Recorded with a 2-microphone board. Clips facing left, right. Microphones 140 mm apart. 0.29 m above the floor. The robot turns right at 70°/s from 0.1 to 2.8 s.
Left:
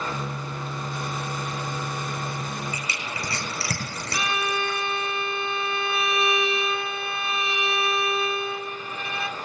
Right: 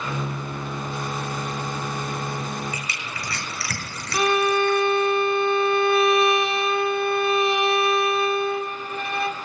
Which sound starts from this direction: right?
A violin, at 4.1 s.